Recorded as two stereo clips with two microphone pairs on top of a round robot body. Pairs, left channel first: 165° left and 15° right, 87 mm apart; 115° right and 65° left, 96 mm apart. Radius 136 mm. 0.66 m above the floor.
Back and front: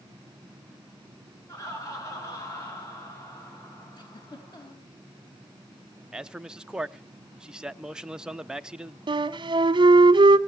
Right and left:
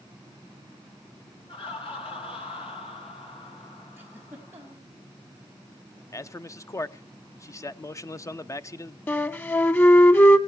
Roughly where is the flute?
Ahead right.